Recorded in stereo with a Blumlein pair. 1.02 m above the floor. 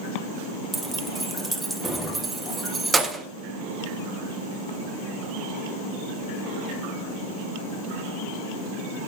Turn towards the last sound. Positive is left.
turn(degrees=-10)